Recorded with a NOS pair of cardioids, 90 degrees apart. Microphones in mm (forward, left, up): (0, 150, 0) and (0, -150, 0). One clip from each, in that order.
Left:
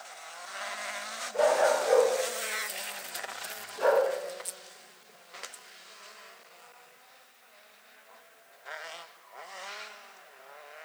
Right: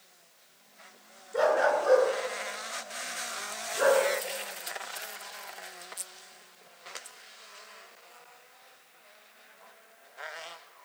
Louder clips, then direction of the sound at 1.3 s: Even; 50° right.